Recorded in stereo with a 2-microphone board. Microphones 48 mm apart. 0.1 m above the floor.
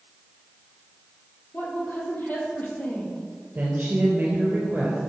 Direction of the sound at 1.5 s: 40° left (ahead or behind).